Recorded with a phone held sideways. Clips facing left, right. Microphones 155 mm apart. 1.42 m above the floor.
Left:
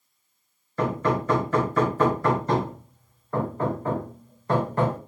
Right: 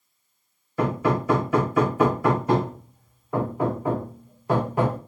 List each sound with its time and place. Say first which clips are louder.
0.8 s hammering: right 1 dB; 10° right (ahead or behind), 0.8 m